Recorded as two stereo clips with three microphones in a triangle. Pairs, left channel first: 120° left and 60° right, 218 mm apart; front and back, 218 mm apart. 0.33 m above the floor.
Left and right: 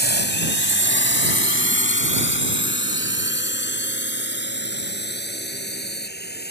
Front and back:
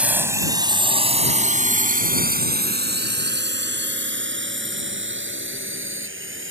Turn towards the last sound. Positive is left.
turn(degrees=160)